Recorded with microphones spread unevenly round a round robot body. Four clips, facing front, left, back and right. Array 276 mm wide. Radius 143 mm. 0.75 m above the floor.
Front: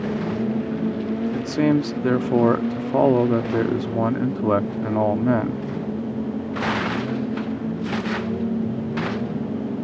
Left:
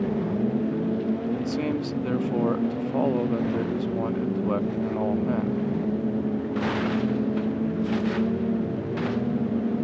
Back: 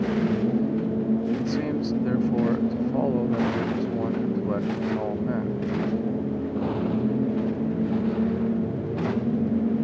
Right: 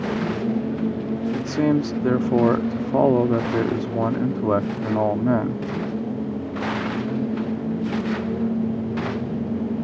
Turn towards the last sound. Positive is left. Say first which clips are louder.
# right 6 dB, front 6 dB
turn(degrees=-40)